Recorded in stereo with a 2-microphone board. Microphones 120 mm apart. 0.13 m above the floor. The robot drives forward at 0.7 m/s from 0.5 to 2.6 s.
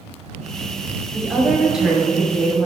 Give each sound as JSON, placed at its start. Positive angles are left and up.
{"t": 1.1, "sound": "a woman speaking", "side_deg": -5, "distance_m": 1.8}